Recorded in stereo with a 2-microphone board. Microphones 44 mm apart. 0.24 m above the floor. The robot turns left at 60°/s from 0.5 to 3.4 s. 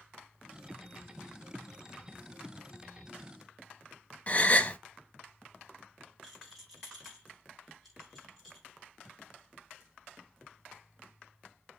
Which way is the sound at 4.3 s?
35° left (ahead or behind).